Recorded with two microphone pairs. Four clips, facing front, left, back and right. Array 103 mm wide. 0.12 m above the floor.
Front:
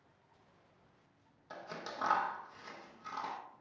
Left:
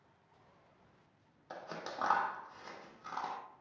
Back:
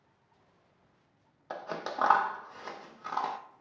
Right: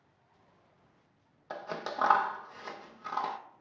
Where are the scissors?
150° right, 0.9 m.